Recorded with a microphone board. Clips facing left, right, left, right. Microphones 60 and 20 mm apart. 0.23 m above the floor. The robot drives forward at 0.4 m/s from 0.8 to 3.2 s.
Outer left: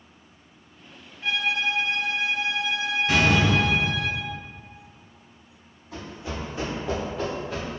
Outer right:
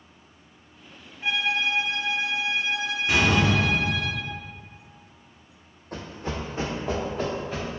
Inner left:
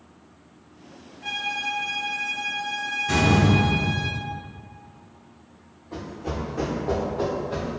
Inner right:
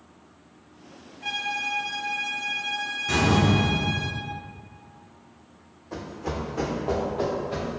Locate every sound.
1.2 s a violin: 25° right (ahead or behind), 0.6 m; by 4.1 s 10° right (ahead or behind), 1.2 m
3.1 s a door slam: 10° right (ahead or behind), 1.2 m
5.9 s running footsteps: 65° right (ahead or behind), 0.7 m; by 7.8 s 5° right (ahead or behind), 1.7 m